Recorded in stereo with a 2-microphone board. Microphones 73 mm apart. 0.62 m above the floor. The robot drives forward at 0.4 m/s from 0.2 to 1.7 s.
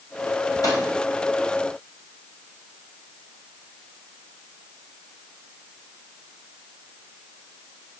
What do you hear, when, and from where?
0.6 s a microwave: 60° left (ahead or behind), 3.5 m; by 0.8 s 55° left (ahead or behind), 3.5 m